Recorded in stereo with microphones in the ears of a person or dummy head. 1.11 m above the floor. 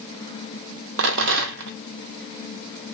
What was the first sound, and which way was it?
A rattle, 70° right (ahead or behind).